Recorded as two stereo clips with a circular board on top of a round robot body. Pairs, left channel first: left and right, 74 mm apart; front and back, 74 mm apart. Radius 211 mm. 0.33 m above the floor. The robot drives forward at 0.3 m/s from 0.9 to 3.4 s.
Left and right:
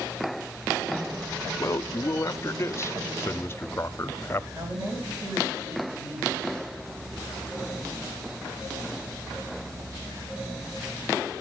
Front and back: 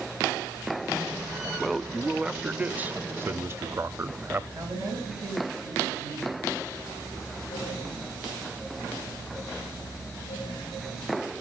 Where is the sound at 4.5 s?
140° right, 8 m.